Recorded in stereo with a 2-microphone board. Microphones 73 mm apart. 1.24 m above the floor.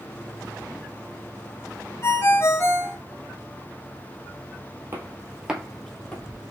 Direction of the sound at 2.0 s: 35° left (ahead or behind).